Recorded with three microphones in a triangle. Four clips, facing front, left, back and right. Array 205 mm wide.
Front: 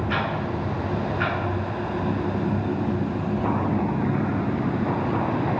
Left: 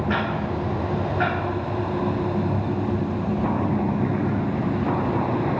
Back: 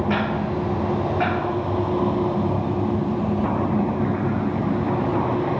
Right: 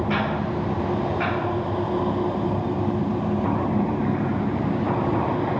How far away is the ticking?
About 6.5 m.